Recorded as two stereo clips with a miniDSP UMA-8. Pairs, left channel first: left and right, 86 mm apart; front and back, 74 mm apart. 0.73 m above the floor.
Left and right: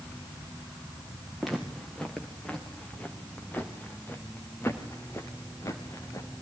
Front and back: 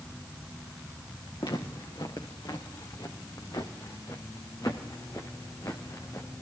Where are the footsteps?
Straight ahead, 4.5 m; by 6.4 s 45° left, 4 m.